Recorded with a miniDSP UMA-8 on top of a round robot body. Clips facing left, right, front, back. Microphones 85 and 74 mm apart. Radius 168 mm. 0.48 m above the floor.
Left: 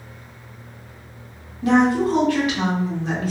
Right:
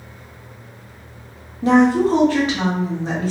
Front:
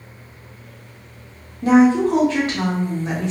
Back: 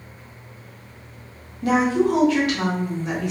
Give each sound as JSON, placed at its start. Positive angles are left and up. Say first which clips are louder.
{"t": 1.6, "sound": "a woman speaking", "louder": "right 3 dB, front 5 dB", "azimuth_deg": -45, "distance_m": 1.4}